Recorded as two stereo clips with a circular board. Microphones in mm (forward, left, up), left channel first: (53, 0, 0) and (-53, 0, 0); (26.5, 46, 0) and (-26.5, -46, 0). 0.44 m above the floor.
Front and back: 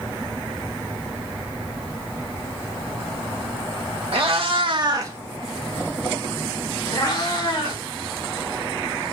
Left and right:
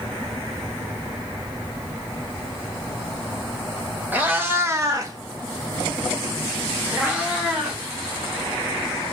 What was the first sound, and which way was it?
A cat meowing, 170° left.